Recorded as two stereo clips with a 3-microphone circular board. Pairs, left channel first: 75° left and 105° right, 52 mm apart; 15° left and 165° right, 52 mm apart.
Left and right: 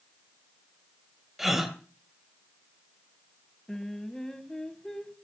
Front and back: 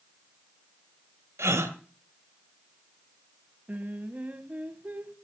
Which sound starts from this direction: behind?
A gasp, at 1.4 s.